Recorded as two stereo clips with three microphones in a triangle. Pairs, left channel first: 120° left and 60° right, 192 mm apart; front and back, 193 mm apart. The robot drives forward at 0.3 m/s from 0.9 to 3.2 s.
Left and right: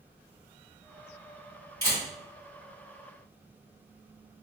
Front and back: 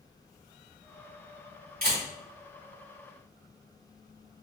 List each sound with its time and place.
1.8 s a camera shutter: 175° right, 1.9 m